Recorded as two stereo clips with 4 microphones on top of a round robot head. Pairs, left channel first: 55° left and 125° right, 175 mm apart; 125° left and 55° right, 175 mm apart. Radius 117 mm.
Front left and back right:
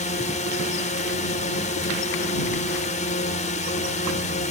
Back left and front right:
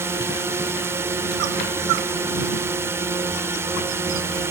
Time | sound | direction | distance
0.0 | a drone | 20° left | ?